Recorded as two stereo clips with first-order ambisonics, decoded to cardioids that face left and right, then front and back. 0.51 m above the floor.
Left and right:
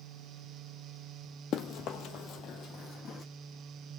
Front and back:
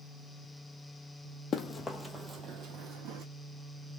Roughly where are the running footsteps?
Ahead left.